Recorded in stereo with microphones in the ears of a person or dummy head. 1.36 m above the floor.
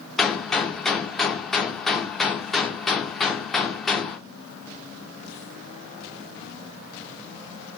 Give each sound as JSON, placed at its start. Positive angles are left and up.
{"t": 0.2, "sound": "a gunshot", "side_deg": 5, "distance_m": 0.6}